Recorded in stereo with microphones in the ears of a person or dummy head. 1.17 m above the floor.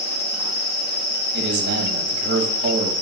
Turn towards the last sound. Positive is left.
turn(degrees=-50)  # may be behind; listen again after turning